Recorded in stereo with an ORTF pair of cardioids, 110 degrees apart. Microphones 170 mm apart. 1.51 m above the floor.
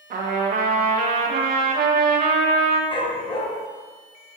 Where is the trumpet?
55° right, 1.6 m.